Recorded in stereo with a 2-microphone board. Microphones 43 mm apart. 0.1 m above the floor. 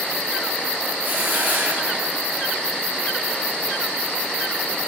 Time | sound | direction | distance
1.0 | a hiss | 50° right (ahead or behind) | 1.4 m